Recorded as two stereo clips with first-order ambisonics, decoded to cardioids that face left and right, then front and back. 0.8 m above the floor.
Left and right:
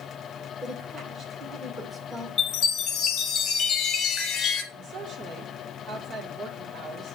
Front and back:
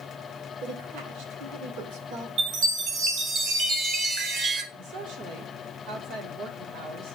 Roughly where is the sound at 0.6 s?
Behind.